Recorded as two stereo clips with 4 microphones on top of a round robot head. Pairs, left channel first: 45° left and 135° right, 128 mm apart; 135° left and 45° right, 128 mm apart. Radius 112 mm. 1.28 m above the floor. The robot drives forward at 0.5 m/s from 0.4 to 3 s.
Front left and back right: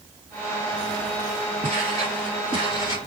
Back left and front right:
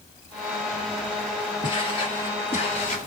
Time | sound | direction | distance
1.6 | footsteps | 175° right | 1.9 m